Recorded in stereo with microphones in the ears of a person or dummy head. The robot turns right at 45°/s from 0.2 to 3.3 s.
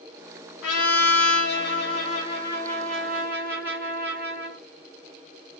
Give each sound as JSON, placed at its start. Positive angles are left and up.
{"t": 0.6, "sound": "a trumpet", "azimuth_deg": 75, "distance_m": 1.1}